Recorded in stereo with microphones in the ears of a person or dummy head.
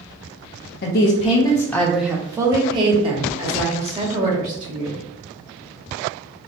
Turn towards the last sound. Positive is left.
turn(degrees=-45)  # may be behind; listen again after turning